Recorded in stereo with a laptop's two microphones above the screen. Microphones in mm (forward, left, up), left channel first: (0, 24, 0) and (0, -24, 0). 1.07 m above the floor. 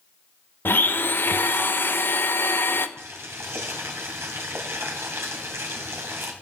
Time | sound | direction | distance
0.7 | a blender | 50° left (ahead or behind) | 0.5 m
3.0 | boiling | 70° right (ahead or behind) | 2 m